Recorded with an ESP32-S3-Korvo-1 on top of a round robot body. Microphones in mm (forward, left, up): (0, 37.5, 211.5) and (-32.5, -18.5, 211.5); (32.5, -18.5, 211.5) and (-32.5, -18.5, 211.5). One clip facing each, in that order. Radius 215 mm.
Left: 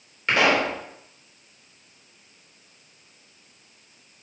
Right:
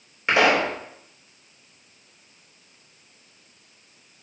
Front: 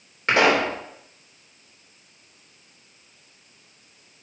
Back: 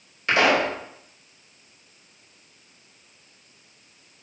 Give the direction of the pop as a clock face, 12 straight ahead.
2 o'clock.